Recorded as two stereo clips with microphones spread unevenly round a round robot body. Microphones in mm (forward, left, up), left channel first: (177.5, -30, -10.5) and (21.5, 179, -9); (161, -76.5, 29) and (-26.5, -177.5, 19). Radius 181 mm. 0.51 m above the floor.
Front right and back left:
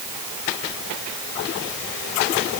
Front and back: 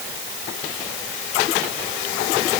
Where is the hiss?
No hiss in this recording.